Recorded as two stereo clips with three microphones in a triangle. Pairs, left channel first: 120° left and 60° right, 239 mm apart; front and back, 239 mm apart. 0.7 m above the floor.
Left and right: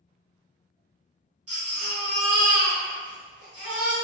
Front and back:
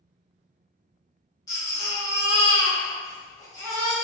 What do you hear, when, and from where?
1.5 s a baby crying: 75° right, 1.3 m